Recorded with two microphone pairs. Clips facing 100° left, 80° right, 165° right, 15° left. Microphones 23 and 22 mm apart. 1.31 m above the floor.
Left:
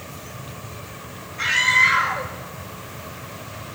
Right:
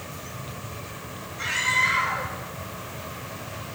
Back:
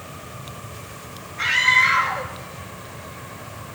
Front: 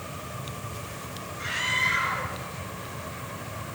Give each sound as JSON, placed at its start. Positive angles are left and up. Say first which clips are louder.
{"t": 1.4, "sound": "a scream", "louder": "left 6 dB, back 10 dB", "azimuth_deg": 170, "distance_m": 2.5}